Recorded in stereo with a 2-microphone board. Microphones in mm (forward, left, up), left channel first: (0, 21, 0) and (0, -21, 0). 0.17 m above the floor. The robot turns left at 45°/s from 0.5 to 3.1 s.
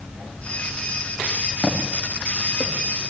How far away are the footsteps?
About 4 m.